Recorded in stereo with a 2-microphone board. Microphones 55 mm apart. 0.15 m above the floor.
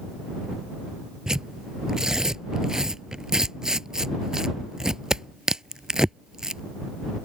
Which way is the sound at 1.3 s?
10° right (ahead or behind).